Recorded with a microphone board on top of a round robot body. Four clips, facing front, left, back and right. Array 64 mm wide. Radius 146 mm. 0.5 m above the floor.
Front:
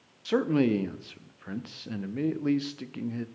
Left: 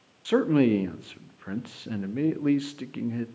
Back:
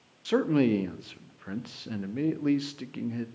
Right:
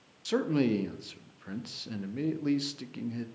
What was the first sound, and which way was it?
A man speaking, 95° left.